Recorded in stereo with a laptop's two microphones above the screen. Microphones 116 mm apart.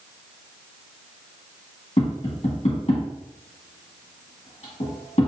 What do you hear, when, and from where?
2.0 s tapping: 65° left (ahead or behind), 1.4 m